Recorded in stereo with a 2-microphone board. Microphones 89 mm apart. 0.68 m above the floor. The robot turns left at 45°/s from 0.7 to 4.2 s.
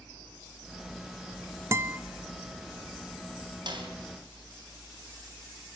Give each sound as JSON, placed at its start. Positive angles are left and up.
{"t": 1.7, "sound": "a guitar", "side_deg": -35, "distance_m": 0.7}
{"t": 3.7, "sound": "a snare drum", "side_deg": -55, "distance_m": 3.5}